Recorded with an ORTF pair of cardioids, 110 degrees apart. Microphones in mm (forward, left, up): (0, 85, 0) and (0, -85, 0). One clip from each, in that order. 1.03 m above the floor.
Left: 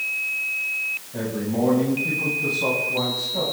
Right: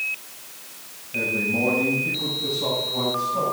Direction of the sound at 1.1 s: 20° left.